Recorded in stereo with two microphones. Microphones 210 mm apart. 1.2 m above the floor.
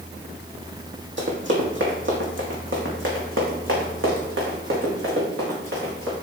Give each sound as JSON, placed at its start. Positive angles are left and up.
{"t": 1.2, "sound": "running footsteps", "side_deg": -60, "distance_m": 2.5}